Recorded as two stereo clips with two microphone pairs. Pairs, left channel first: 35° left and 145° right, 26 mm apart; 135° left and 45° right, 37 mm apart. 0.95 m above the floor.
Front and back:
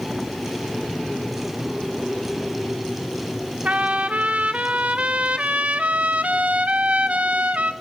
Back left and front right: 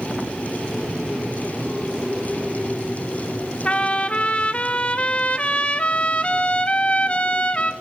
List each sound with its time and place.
3.6 s a trumpet: 175° right, 1.8 m